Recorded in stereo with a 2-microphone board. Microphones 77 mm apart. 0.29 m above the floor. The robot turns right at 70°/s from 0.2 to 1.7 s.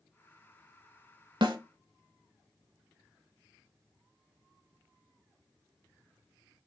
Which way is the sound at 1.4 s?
70° right (ahead or behind).